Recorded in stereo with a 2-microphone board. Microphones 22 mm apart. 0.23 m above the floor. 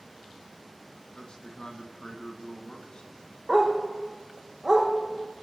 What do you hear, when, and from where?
1.1 s a man speaking: 45° left (ahead or behind), 2 m
3.5 s a dog barking: 25° right (ahead or behind), 3.5 m